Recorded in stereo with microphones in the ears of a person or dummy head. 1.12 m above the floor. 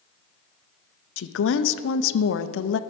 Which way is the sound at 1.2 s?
65° left (ahead or behind).